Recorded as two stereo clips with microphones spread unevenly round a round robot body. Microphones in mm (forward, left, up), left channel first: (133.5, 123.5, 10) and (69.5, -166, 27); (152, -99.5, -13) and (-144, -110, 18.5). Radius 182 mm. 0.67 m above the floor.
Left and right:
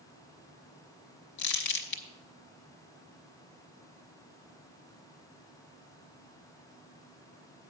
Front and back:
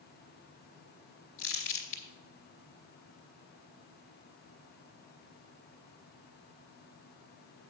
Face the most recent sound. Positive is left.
turn(degrees=65)